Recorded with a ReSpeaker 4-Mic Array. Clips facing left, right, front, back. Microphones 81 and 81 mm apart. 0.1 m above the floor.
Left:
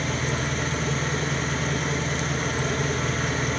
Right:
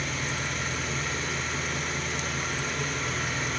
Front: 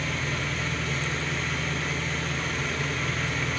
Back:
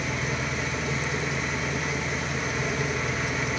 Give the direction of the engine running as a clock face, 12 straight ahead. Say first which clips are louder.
Left 5 dB, back 1 dB; 8 o'clock.